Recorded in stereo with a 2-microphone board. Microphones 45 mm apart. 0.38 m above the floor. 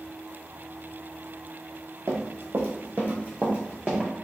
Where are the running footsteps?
70° right (ahead or behind), 0.9 m; by 4.1 s 15° right (ahead or behind), 1.5 m.